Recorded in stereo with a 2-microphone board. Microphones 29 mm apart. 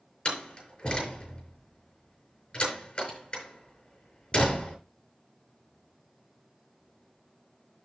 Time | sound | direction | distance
0.2 | a door slam | 30° left (ahead or behind) | 6 m